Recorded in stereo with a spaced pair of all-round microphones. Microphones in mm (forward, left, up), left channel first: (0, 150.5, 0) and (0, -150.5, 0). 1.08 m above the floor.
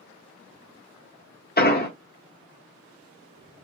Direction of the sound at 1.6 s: 30° left (ahead or behind).